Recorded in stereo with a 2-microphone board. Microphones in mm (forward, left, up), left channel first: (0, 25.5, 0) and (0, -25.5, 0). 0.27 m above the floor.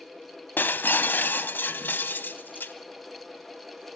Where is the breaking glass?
40° left (ahead or behind), 0.9 m.